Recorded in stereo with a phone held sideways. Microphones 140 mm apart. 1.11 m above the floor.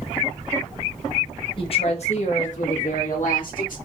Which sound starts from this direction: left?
A woman speaking, at 1.6 s.